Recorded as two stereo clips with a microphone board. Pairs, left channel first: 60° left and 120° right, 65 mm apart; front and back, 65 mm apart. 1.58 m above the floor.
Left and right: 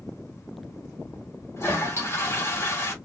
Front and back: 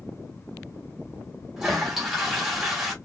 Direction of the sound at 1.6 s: 95° left.